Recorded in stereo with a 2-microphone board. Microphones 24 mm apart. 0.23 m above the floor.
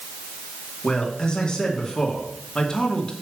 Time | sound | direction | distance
0.8 | a man speaking | 30° left (ahead or behind) | 2.5 m